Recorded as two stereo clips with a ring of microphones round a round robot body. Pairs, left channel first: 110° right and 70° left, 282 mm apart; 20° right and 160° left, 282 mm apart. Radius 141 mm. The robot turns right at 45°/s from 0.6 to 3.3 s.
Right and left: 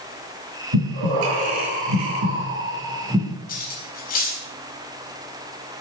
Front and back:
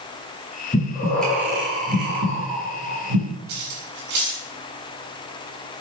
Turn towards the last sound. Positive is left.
turn(degrees=-175)